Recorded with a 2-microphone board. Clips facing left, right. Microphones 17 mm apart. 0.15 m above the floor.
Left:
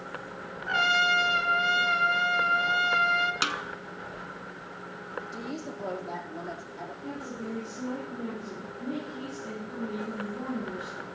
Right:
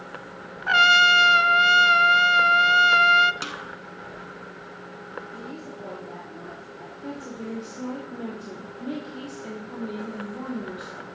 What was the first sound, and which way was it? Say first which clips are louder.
A trumpet: right 8 dB; 45° right (ahead or behind).